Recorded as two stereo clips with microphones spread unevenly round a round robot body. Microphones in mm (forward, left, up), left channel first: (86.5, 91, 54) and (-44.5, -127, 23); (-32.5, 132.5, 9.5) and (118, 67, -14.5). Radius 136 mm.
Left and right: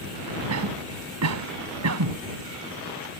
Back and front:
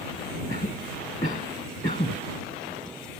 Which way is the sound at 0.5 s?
140° right.